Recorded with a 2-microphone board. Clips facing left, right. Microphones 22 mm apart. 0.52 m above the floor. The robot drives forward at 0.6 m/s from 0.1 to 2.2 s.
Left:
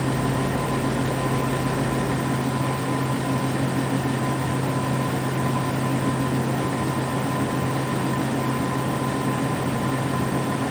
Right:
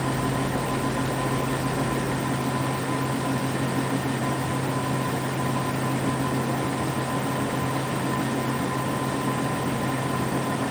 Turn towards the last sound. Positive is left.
No sound to turn to.